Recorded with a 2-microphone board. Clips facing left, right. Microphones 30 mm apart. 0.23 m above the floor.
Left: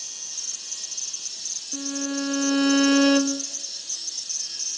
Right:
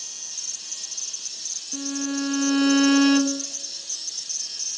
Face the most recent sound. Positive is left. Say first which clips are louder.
# right 1 dB
turn(degrees=0)  # may be behind; listen again after turning